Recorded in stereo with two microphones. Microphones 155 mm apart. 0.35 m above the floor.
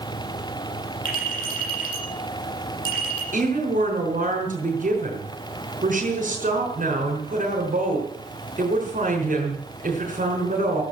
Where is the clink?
65° left (ahead or behind), 8 m.